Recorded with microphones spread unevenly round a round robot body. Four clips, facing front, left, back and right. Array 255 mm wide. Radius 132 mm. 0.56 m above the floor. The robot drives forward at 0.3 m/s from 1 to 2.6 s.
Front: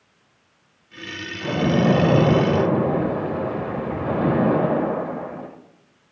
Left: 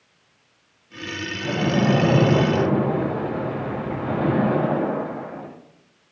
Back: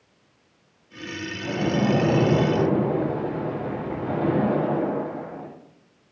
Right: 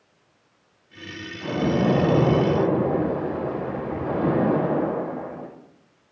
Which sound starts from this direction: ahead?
A splash, at 1.4 s.